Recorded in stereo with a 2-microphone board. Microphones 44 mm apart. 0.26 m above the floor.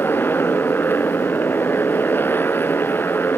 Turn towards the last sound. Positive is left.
turn(degrees=50)  # may be behind; listen again after turning